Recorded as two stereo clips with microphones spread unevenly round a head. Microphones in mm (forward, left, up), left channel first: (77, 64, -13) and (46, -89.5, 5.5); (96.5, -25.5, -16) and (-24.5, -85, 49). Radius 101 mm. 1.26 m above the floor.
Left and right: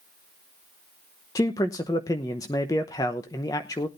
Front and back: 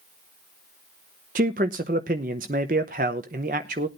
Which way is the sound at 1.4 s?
155° left.